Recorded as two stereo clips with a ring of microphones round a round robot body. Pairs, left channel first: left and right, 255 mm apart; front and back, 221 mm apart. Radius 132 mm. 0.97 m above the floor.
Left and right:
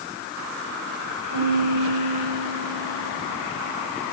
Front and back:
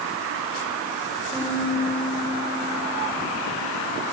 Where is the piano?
75° right, 4.5 m.